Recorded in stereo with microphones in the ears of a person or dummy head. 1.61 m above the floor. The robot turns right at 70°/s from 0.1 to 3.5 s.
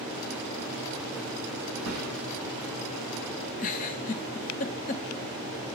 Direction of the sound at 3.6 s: 45° left (ahead or behind).